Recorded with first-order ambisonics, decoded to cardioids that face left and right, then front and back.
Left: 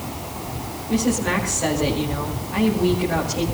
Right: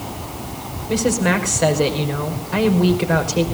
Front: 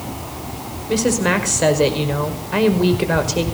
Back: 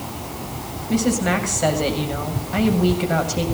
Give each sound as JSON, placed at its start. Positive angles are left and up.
{"t": 0.9, "sound": "a woman speaking", "azimuth_deg": -35, "distance_m": 5.0}